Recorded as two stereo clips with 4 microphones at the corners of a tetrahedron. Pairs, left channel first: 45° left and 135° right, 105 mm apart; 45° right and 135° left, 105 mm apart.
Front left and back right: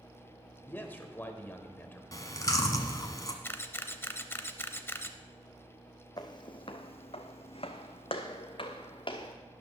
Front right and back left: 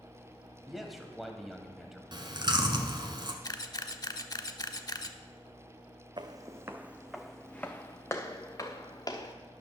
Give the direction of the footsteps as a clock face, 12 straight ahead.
9 o'clock.